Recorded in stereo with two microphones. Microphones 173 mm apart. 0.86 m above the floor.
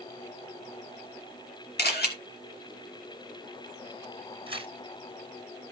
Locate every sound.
1.8 s a camera shutter: 70° left (ahead or behind), 2.0 m
4.5 s tearing paper: 30° right (ahead or behind), 1.6 m